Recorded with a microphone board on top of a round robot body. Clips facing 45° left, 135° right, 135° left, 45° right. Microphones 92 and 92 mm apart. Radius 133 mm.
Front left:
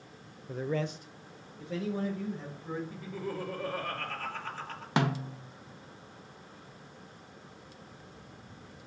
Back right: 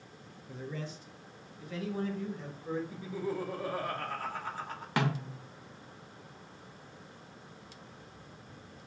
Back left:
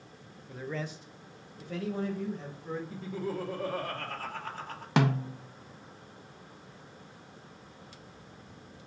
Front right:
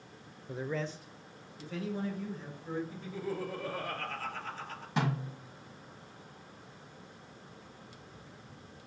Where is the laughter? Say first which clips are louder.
Back right 2 dB, back left 3 dB; 150° left, 1.6 m.